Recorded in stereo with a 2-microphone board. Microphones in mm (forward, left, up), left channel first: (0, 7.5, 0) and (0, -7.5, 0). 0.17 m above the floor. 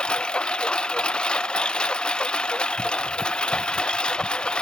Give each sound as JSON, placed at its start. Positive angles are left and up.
{"t": 0.0, "sound": "a lawn mower", "side_deg": 80}